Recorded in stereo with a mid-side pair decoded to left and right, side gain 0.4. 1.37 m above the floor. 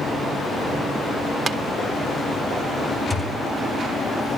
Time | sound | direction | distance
1.5 | tapping | 40° right | 1.5 m
3.1 | a thud | 10° left | 4 m